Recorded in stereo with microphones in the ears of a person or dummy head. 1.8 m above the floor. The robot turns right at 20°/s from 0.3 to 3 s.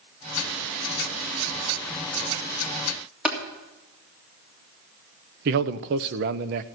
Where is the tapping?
5° right (ahead or behind), 3 m.